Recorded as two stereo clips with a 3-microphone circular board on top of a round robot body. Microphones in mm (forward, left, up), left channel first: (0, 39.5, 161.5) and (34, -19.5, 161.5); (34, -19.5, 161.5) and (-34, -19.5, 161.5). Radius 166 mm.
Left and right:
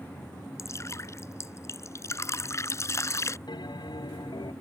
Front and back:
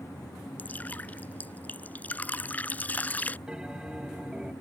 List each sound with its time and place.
0.6 s dripping: 70° left
3.5 s a bell: 100° left